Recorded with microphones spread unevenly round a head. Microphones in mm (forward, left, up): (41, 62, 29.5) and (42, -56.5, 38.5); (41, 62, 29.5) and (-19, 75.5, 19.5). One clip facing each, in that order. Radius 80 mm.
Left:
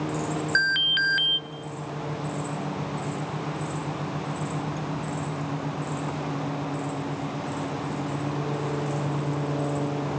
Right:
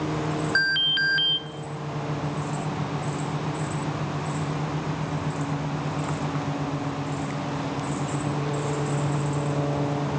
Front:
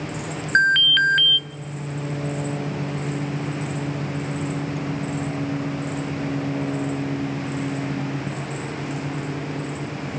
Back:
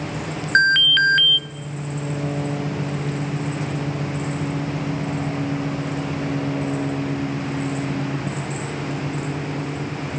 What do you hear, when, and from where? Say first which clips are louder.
0.6 s an alarm: even, back 1 dB; 85° left, 1.6 m